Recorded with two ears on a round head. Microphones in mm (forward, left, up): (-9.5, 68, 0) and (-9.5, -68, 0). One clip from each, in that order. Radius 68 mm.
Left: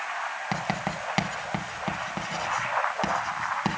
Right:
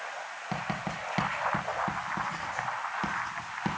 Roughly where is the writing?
Left.